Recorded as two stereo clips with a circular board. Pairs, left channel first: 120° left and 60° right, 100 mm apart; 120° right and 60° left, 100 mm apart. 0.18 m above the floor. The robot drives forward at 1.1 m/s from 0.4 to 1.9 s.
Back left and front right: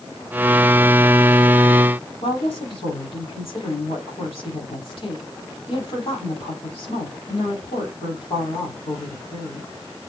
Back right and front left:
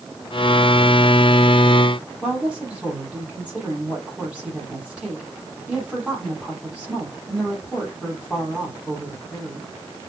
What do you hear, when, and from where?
2.2 s a woman speaking: 140° left, 7 m